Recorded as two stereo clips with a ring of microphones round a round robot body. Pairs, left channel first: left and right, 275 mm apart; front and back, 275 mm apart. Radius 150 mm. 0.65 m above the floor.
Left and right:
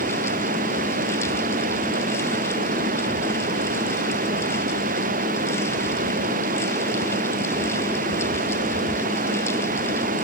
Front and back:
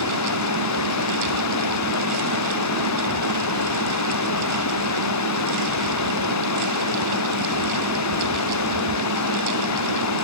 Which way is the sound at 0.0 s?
25° right.